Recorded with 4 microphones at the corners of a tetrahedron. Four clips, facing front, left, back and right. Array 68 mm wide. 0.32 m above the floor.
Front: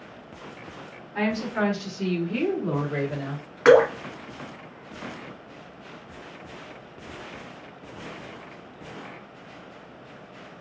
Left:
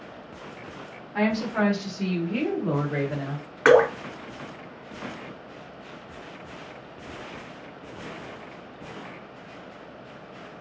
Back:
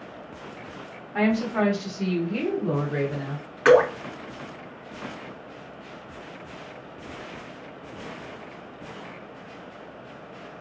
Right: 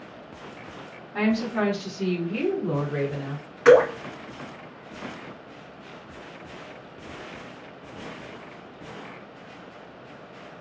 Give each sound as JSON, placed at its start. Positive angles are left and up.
{"t": 1.1, "sound": "a woman speaking", "azimuth_deg": 170, "distance_m": 1.6}
{"t": 3.6, "sound": "dripping", "azimuth_deg": 75, "distance_m": 1.7}